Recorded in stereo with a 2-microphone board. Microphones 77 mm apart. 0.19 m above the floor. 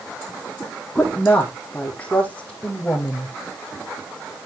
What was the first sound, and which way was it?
A woman speaking, 15° left (ahead or behind).